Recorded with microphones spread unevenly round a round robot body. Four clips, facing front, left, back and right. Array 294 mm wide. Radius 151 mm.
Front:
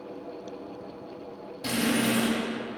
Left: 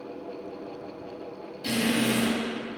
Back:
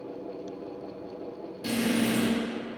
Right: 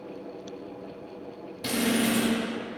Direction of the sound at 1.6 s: 55° right.